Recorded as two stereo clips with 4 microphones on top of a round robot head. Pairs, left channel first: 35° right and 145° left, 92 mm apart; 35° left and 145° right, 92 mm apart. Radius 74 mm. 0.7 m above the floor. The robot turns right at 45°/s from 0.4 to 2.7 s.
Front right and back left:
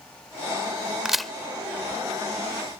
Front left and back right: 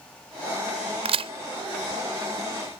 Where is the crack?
130° right; by 1.3 s 120° right.